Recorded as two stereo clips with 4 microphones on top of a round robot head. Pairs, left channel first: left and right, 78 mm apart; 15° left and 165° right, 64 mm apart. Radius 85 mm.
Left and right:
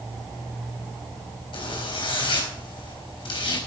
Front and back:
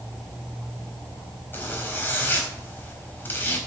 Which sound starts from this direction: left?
A zipper, at 1.5 s.